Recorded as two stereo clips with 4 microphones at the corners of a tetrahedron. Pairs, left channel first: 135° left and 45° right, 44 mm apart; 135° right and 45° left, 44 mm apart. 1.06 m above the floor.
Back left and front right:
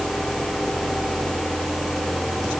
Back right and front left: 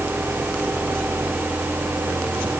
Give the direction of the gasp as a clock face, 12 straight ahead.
I don't hear a gasp.